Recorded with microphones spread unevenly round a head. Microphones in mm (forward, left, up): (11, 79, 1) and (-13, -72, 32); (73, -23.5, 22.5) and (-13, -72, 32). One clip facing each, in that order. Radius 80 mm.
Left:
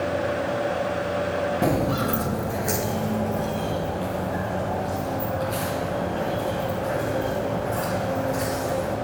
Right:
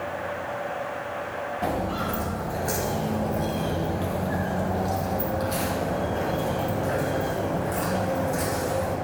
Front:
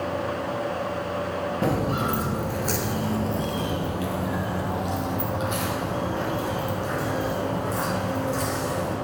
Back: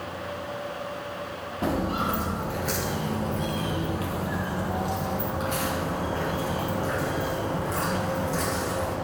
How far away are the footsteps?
About 1.7 m.